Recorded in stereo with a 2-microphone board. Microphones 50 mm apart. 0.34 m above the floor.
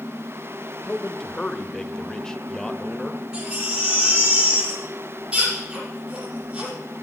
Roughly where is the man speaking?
Centre.